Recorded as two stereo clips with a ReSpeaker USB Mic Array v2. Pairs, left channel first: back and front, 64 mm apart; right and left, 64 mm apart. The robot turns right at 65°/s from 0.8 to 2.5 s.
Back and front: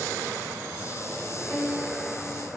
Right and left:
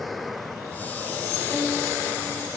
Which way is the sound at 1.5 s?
130° left.